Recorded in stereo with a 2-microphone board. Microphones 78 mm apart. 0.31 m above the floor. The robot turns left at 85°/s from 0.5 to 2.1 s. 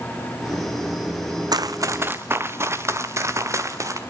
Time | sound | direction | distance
1.5 | running footsteps | 55° right (ahead or behind) | 0.8 m